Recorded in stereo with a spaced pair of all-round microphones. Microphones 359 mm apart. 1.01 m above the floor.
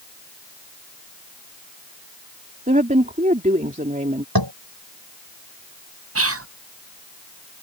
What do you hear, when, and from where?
2.7 s a woman speaking: 20° right (ahead or behind)
4.3 s tapping: 75° right (ahead or behind)
6.2 s whispering: 40° right (ahead or behind)